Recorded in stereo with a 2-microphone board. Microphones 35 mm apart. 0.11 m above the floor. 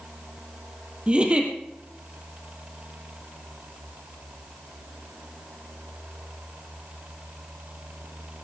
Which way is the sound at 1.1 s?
30° right (ahead or behind).